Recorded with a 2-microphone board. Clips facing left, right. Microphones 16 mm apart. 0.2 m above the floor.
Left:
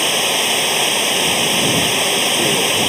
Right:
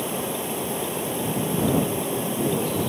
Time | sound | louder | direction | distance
0.0 | running water | left 12 dB | 65° left (ahead or behind) | ?